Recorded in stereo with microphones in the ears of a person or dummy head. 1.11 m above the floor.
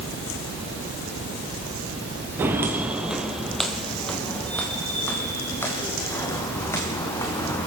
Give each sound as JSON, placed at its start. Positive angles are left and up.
{"t": 2.4, "sound": "footsteps", "side_deg": -15, "distance_m": 1.4}